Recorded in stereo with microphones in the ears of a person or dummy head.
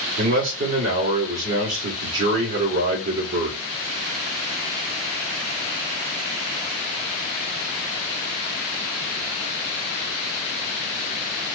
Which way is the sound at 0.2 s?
65° right (ahead or behind).